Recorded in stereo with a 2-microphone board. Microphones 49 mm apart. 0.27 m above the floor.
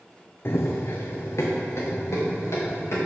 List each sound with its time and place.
0.5 s running footsteps: 55° left (ahead or behind), 0.8 m; by 3.0 s 65° left (ahead or behind), 4 m